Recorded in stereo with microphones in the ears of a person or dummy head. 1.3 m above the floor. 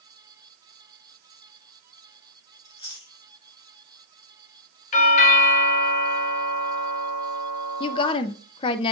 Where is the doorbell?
40° left (ahead or behind), 1.3 m.